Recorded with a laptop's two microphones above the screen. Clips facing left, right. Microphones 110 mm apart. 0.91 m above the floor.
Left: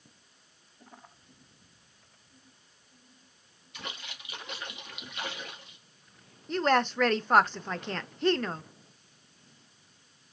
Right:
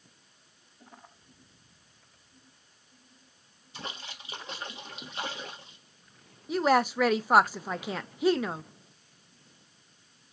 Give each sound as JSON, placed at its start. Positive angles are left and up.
{"t": 3.7, "sound": "a splash", "side_deg": -30, "distance_m": 1.4}
{"t": 6.5, "sound": "a woman speaking", "side_deg": -5, "distance_m": 0.5}